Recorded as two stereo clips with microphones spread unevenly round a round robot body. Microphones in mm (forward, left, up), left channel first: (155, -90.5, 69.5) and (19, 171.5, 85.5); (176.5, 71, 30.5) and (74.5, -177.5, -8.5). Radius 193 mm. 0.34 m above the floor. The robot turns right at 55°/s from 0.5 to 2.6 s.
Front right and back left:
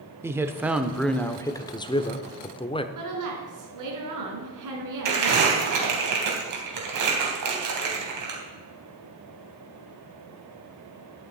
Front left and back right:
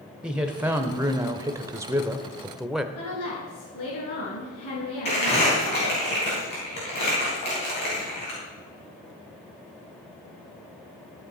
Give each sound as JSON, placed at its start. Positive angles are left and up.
{"t": 0.2, "sound": "a man speaking", "azimuth_deg": -165, "distance_m": 0.8}
{"t": 3.0, "sound": "a woman speaking", "azimuth_deg": 105, "distance_m": 4.0}
{"t": 5.0, "sound": "crumpling", "azimuth_deg": 135, "distance_m": 3.5}